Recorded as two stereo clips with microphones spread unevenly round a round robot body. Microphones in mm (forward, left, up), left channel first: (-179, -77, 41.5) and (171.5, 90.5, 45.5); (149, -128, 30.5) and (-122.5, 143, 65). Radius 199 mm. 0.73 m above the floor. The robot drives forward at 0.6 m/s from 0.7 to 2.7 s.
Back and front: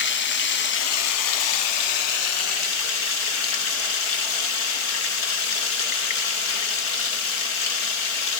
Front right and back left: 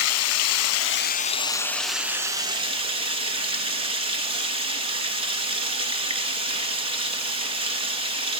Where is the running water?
95° right, 0.9 m; by 8.4 s 150° right, 1.6 m.